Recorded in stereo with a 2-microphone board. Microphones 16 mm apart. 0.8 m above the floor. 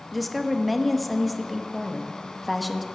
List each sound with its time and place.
0.1 s a woman speaking: 5° left (ahead or behind), 0.9 m